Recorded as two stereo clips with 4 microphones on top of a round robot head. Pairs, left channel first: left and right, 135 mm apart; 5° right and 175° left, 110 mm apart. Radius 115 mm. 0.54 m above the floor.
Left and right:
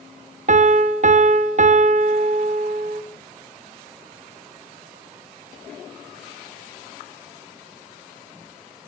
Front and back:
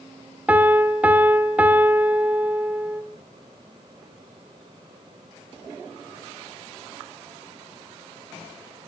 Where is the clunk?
No clunk in this recording.